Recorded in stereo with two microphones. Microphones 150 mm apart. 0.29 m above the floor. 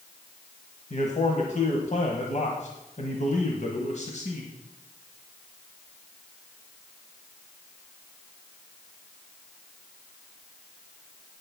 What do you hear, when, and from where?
0.9 s a man speaking: 55° left (ahead or behind), 1.4 m